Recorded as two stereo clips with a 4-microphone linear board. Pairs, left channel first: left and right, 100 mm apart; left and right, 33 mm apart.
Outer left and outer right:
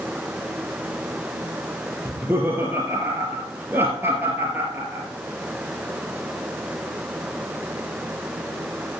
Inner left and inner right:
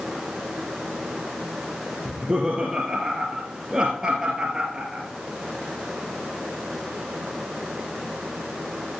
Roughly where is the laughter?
Right.